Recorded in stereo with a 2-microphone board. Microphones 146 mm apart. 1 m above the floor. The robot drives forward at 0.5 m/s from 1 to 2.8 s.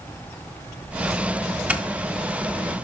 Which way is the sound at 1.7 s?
10° right (ahead or behind).